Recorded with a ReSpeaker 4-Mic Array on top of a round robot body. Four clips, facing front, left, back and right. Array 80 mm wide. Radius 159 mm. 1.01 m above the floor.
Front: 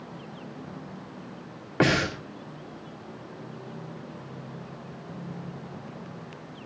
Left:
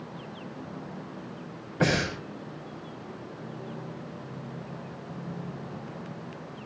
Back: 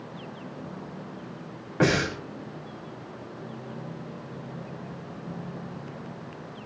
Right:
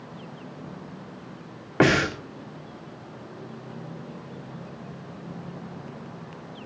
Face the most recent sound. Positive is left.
turn(degrees=-70)